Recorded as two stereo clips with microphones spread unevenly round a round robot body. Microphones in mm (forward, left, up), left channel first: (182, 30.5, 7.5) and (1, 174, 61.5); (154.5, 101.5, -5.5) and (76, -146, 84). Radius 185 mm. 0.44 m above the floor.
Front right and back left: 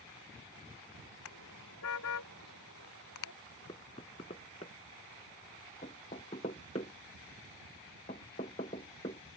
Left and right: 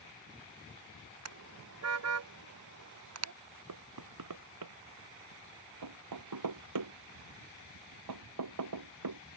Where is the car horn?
85° right.